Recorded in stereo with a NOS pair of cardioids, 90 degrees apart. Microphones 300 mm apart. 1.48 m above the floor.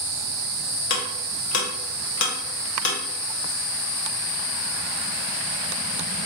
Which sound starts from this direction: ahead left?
Ticking, at 0.9 s.